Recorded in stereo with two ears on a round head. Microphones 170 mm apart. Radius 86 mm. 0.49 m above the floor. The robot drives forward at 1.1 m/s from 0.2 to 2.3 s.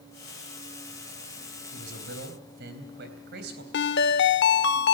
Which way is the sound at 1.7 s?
65° right (ahead or behind).